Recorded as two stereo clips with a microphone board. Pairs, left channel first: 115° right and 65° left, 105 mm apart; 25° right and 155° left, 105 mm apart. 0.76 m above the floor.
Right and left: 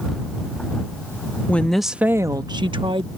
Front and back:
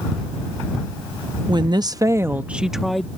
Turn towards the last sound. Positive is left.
turn(degrees=65)